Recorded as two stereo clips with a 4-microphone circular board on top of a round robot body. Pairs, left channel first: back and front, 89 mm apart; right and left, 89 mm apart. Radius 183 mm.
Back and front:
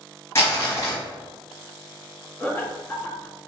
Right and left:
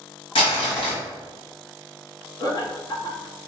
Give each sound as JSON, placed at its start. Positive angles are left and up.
{"t": 0.3, "sound": "crumpling", "azimuth_deg": -115, "distance_m": 1.5}
{"t": 2.4, "sound": "laughter", "azimuth_deg": -115, "distance_m": 1.1}